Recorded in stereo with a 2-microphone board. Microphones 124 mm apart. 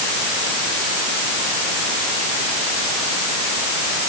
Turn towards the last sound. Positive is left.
No sound to turn to.